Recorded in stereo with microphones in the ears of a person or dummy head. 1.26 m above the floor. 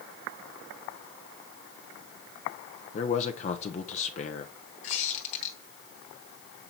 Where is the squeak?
45° left (ahead or behind), 1.2 m.